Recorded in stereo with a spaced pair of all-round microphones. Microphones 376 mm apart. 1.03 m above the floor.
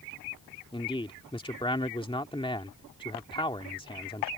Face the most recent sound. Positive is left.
turn(degrees=15)  # may be behind; listen again after turning